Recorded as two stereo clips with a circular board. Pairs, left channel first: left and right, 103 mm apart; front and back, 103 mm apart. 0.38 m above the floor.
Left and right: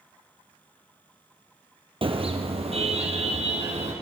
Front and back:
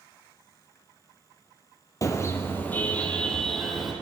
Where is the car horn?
60° right, 4 m; by 3.9 s 90° right, 5 m.